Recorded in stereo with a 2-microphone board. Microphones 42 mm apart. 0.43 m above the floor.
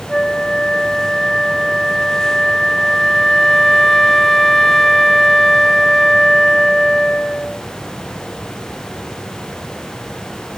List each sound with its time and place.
0.1 s a flute: 10° left (ahead or behind), 0.6 m